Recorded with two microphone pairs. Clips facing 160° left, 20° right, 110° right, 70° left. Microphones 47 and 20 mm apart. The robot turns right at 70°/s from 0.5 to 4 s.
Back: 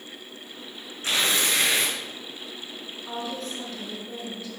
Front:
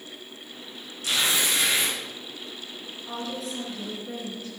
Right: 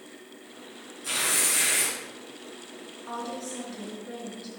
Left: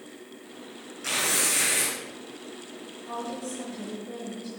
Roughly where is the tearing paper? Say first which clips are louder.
Back 1 dB, left 1 dB; left.